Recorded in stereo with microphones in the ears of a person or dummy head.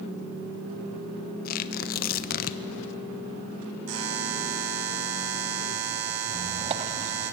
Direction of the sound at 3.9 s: 75° right (ahead or behind).